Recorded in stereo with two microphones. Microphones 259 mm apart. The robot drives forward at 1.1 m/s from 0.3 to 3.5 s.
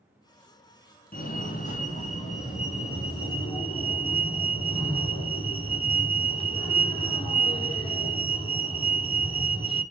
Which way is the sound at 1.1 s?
35° left (ahead or behind).